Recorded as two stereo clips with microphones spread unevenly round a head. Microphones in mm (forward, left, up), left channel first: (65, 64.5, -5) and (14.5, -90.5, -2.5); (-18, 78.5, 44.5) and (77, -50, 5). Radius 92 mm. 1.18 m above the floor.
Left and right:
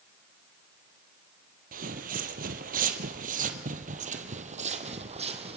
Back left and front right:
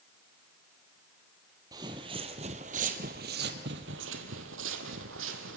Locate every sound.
1.7 s footsteps: 130° right, 1.8 m; by 5.6 s 60° right, 2.5 m